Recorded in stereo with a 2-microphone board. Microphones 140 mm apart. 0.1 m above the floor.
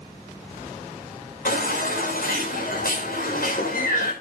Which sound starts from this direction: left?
A baby crying, at 1.4 s.